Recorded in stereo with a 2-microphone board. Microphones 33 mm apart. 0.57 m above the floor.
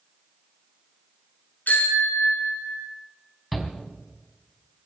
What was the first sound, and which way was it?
A bicycle bell, 75° left (ahead or behind).